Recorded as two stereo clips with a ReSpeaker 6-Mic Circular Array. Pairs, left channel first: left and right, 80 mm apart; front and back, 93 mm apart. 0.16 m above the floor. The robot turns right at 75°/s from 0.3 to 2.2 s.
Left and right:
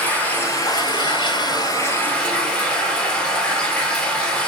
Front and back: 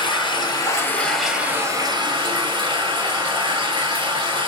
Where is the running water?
20° left, 1.6 m; by 4.5 s 165° left, 1.6 m.